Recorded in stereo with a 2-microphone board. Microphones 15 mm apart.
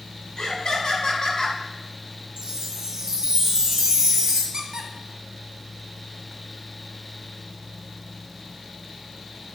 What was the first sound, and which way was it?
Laughter, 60° left (ahead or behind).